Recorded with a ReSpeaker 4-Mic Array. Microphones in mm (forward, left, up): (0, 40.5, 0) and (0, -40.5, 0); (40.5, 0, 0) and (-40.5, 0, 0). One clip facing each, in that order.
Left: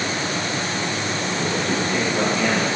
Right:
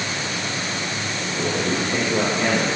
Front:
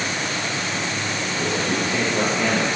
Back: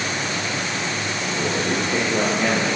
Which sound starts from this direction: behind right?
A man speaking, at 1.4 s.